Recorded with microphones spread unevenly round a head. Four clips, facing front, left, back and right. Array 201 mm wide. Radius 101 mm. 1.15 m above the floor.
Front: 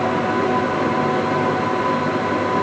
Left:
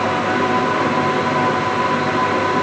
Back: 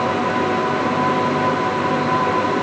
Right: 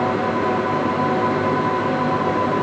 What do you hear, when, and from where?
Only background noise.